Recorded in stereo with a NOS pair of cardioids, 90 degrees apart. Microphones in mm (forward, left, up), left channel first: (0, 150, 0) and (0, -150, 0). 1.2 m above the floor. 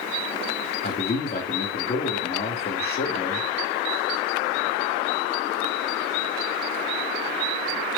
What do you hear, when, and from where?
0.8 s a man speaking: 30° left, 2.5 m